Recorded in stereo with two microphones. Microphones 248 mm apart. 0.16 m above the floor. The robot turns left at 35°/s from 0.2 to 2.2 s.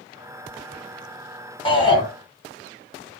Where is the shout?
20° left (ahead or behind), 1.7 m.